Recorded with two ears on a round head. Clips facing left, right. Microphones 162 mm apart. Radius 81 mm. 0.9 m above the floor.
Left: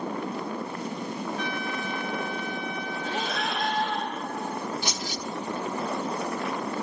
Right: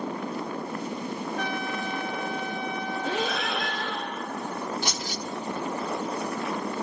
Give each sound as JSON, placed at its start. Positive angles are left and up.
{"t": 1.4, "sound": "a trumpet", "side_deg": -50, "distance_m": 2.5}
{"t": 3.0, "sound": "breathing", "side_deg": -65, "distance_m": 1.3}
{"t": 4.8, "sound": "keys jangling", "side_deg": -45, "distance_m": 2.0}